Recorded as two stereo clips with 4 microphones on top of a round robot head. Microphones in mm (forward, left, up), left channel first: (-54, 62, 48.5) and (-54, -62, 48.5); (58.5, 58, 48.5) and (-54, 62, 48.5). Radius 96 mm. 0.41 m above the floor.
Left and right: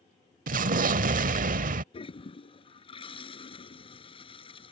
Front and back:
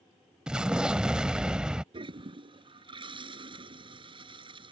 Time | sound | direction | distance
0.5 | an explosion | 95° right | ?
1.9 | a toilet flushing | 135° left | ?